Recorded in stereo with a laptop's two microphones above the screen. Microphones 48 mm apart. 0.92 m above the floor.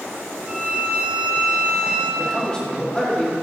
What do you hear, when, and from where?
0.4 s a violin: 35° right (ahead or behind), 4 m
2.2 s a man speaking: 20° left (ahead or behind), 3.5 m